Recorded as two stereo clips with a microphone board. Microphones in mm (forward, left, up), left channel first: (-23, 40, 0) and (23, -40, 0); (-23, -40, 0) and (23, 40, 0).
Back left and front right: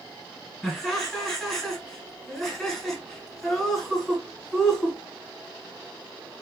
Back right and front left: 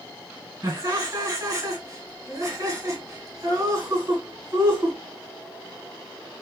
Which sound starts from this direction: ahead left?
Laughter, at 0.6 s.